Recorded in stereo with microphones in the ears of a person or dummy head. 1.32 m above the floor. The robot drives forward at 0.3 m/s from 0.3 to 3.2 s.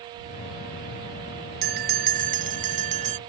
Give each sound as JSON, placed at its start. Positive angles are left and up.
{"t": 1.6, "sound": "a bell", "side_deg": -50}